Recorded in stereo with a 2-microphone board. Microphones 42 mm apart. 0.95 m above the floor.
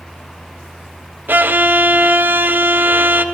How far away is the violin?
About 1.1 m.